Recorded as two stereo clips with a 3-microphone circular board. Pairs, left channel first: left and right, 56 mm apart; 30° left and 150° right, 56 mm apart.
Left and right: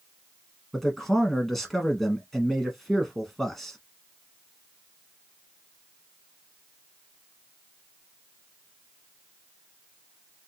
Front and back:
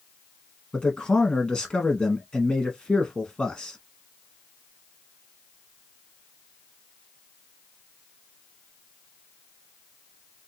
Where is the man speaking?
10° left, 1.0 m.